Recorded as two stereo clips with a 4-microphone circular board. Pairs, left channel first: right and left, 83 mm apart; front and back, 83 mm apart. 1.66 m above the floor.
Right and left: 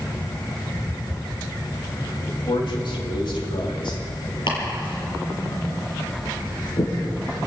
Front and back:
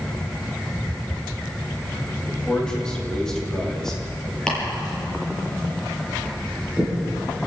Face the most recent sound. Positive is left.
turn(degrees=-80)